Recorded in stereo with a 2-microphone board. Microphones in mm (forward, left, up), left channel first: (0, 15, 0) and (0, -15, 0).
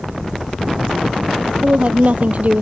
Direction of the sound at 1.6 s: 50° right (ahead or behind).